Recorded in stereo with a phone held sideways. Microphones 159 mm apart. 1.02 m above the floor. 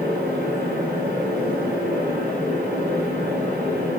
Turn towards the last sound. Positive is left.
turn(degrees=-85)